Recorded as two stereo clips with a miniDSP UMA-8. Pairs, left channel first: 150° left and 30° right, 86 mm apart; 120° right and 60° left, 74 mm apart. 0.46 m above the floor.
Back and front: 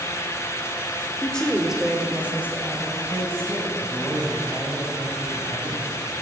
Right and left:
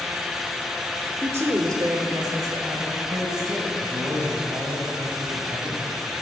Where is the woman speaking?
90° left, 1.1 m; by 3.8 s 30° left, 3.5 m.